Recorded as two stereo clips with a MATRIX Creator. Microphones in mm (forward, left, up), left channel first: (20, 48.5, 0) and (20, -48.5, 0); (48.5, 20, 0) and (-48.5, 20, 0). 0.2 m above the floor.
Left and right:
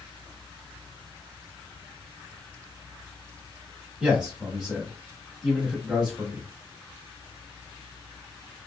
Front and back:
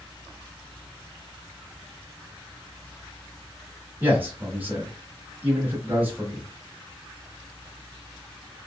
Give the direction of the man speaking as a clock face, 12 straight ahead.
5 o'clock.